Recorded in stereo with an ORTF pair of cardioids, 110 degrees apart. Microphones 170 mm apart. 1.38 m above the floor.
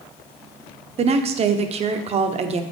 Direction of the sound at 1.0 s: 45° right.